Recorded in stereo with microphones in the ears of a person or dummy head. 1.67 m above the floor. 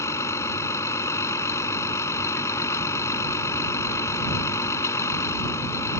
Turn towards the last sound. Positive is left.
turn(degrees=15)  # may be behind; listen again after turning